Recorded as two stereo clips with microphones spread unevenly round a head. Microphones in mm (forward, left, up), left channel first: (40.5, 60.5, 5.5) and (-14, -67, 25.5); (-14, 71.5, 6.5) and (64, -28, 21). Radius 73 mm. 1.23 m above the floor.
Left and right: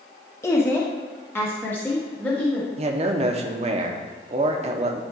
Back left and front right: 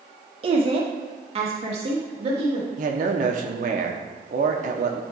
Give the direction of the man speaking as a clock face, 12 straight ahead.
2 o'clock.